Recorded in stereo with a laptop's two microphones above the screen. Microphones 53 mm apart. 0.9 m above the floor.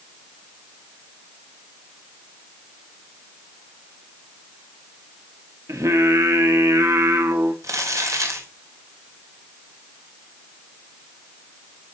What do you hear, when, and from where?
5.7 s singing: 75° right (ahead or behind), 1.4 m
7.6 s crumpling: 85° right, 3 m